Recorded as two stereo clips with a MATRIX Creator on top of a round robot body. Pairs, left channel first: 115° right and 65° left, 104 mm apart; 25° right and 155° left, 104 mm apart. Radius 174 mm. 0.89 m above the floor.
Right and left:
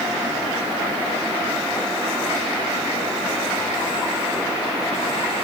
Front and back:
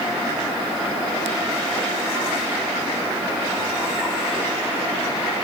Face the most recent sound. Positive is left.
No sound to turn to.